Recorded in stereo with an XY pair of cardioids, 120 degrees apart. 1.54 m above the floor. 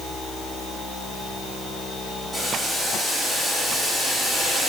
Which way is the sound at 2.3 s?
Straight ahead.